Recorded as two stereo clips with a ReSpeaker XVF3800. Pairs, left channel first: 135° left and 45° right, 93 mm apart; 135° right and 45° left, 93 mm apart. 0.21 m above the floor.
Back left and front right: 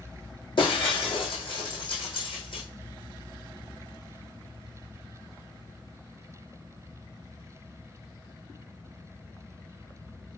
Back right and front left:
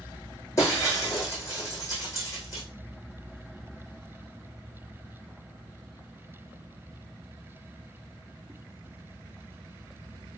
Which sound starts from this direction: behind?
Breaking glass, at 0.6 s.